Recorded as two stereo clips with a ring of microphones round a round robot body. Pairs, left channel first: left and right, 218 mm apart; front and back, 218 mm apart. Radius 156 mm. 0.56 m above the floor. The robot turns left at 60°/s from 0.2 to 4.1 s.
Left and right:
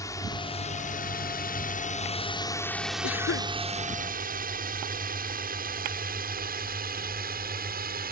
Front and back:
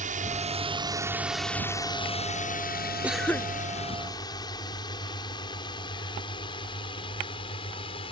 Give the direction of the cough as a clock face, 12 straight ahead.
9 o'clock.